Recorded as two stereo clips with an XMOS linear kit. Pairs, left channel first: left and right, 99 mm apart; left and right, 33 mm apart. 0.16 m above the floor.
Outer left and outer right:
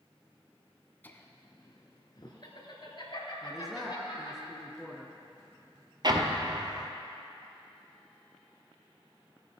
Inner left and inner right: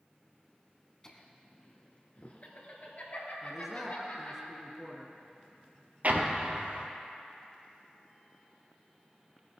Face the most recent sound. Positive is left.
turn(degrees=-50)  # may be behind; listen again after turning